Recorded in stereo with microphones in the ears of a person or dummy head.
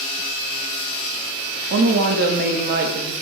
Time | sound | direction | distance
1.7 | a woman speaking | 55° right (ahead or behind) | 0.5 m